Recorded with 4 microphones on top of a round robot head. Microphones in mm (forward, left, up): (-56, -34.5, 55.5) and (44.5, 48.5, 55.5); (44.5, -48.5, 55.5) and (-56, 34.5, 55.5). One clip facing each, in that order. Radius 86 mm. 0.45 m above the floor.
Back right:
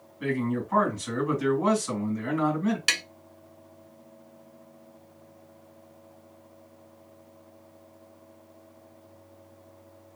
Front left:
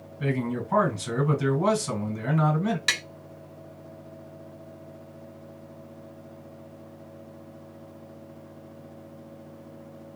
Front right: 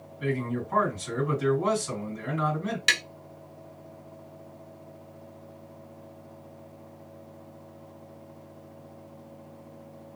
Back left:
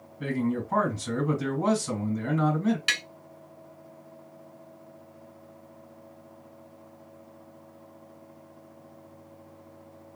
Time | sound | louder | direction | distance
0.2 | a man speaking | even, back left 2 dB | 95° left | 1.9 m
2.9 | tapping | front left 1 dB, front right 4 dB | 65° right | 1.2 m